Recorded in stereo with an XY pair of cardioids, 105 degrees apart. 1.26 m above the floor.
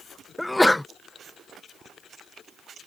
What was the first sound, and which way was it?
A sneeze, 10° left.